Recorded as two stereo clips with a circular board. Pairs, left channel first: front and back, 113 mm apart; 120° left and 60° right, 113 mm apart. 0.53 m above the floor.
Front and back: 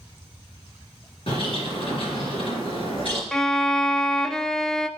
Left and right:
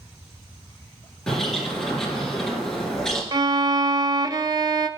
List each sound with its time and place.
1.3 s a bird: 35° left, 3.5 m
3.3 s a violin: 85° right, 0.6 m